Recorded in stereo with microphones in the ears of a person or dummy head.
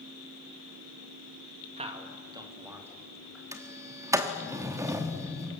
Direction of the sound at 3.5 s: 20° right (ahead or behind).